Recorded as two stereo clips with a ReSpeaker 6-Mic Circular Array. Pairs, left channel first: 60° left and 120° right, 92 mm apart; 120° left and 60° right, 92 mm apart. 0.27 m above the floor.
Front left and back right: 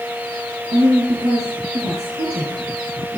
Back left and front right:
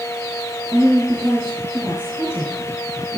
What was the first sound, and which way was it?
A woman speaking, 125° right.